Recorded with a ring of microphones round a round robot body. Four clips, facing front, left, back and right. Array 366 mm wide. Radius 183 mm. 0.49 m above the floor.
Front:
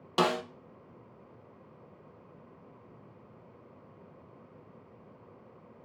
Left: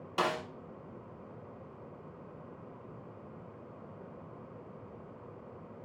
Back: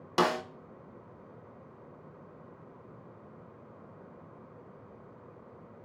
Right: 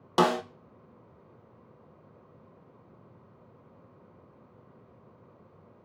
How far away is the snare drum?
About 0.9 m.